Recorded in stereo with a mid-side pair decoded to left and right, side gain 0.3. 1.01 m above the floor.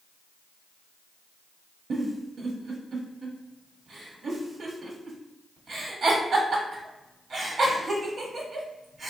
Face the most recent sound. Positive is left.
turn(degrees=-65)